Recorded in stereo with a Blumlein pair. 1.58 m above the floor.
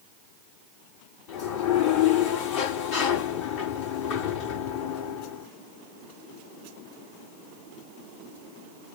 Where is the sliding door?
45° left, 5 m.